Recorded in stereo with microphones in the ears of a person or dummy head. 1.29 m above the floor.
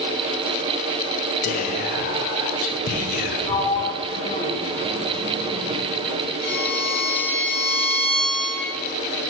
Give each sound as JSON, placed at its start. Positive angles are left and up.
{"t": 1.4, "sound": "whispering", "side_deg": 40, "distance_m": 0.9}
{"t": 3.5, "sound": "a sliding door", "side_deg": 25, "distance_m": 1.1}
{"t": 6.4, "sound": "a violin", "side_deg": -70, "distance_m": 1.9}